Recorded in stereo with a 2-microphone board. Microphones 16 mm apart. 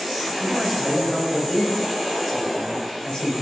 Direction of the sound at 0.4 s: 5° right (ahead or behind).